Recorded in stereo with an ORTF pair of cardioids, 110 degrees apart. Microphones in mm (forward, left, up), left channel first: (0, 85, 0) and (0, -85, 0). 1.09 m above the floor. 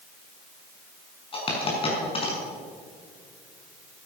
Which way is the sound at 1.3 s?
30° left.